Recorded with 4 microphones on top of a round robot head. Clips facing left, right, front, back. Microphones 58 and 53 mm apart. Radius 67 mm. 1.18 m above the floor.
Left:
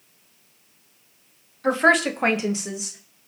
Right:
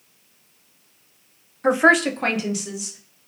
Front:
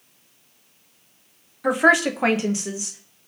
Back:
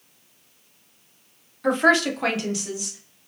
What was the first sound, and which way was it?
A woman speaking, 75° right.